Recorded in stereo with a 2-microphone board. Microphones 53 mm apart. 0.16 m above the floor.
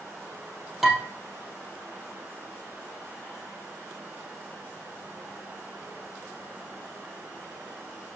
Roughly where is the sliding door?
I don't hear a sliding door.